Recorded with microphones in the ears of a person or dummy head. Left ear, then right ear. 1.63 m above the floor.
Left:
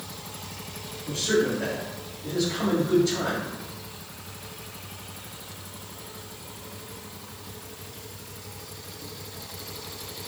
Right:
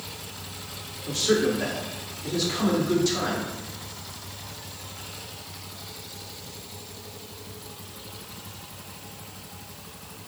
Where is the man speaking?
40° right (ahead or behind), 1.9 m.